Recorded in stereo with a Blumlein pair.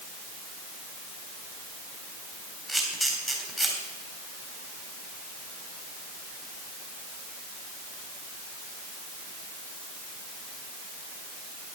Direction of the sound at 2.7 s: 10° right.